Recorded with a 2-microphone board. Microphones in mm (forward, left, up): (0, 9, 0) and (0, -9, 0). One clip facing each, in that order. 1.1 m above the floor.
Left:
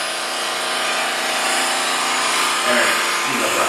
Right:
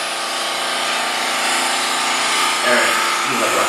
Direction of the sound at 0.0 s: 65° right (ahead or behind).